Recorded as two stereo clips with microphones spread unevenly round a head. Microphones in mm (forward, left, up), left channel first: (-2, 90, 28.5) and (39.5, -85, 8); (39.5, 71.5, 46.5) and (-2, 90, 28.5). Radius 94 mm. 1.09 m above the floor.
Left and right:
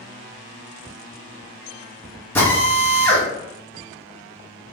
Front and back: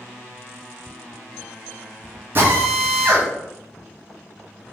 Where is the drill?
175° right, 2 m.